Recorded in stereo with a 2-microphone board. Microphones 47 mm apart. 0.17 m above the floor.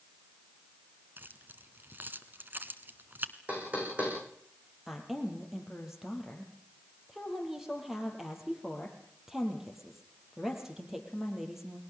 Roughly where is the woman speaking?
Centre.